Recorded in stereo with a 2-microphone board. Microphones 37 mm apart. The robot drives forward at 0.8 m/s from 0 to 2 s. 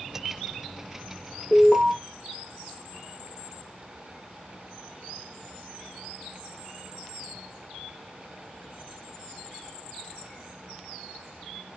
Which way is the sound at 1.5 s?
65° left (ahead or behind).